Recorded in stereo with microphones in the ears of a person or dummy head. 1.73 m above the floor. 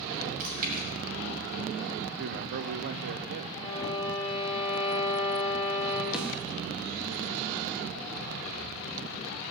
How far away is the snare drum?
About 1.3 m.